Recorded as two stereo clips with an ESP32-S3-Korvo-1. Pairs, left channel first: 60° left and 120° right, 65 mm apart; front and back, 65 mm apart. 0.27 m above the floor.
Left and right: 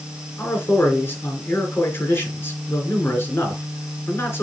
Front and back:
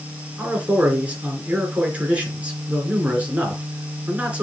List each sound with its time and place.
0.4 s a man speaking: 110° left, 3.5 m